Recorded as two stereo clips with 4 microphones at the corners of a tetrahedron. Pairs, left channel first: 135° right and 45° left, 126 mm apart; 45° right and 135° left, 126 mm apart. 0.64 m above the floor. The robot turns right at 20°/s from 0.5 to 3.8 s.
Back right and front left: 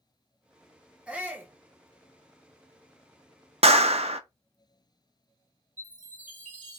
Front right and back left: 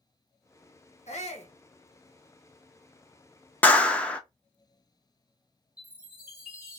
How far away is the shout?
About 1.3 m.